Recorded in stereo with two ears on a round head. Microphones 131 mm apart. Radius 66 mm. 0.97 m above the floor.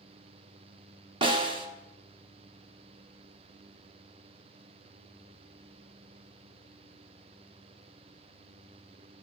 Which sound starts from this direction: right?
A snare drum, at 1.2 s.